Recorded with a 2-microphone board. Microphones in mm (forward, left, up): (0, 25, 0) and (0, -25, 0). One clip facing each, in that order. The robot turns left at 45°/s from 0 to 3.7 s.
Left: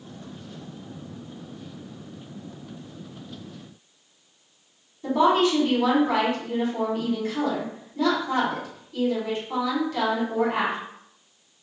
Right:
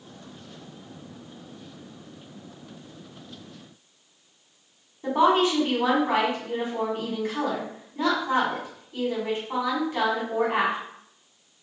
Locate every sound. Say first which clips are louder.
5.0 s a woman speaking: left 1 dB; 25° right (ahead or behind), 1.3 m